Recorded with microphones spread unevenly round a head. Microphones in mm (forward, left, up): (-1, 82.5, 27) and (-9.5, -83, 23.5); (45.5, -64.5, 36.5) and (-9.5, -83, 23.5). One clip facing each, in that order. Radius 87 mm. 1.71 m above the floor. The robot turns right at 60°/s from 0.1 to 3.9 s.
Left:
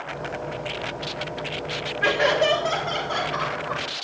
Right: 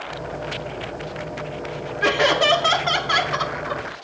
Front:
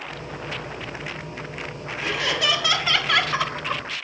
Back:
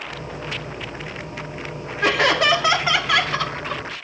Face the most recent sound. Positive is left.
turn(degrees=-25)